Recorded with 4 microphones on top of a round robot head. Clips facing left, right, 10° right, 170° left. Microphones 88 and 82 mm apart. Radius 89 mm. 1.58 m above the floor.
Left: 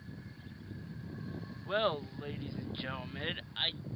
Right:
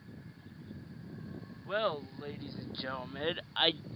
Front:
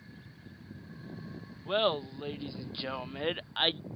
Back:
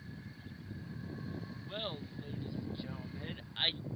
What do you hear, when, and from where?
1.6 s laughter: straight ahead; by 3.8 s 65° right